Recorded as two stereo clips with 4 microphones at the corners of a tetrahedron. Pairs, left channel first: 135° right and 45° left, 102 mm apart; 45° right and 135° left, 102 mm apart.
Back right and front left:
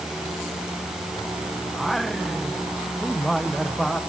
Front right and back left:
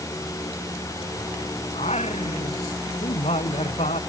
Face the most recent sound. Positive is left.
turn(degrees=-45)